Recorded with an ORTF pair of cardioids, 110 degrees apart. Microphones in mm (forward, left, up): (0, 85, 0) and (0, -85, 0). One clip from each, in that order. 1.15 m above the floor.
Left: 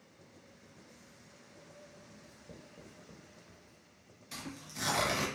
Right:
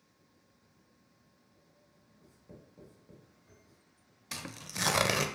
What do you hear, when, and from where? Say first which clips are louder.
2.2 s writing: left 4 dB; 25° left, 1.1 m
4.3 s tearing paper: right 4 dB; 50° right, 0.5 m